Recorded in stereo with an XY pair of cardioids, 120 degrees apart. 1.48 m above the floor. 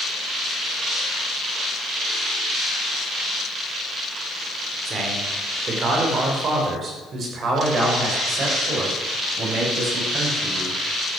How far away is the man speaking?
About 5 m.